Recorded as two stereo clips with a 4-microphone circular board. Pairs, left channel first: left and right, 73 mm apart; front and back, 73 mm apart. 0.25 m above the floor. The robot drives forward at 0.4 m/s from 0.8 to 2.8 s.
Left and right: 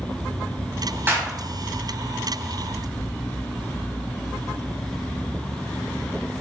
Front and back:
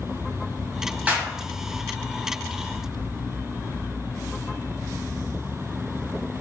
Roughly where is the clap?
Behind right.